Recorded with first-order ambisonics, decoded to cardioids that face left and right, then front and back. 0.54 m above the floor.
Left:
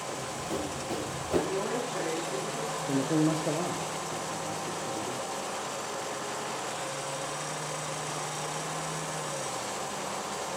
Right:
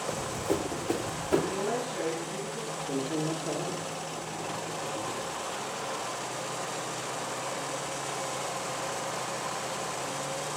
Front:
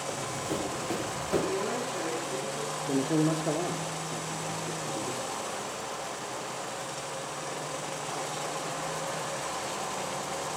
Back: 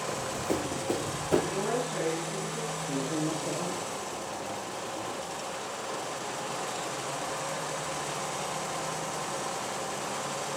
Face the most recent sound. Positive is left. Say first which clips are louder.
# left 5 dB, front 6 dB
turn(degrees=50)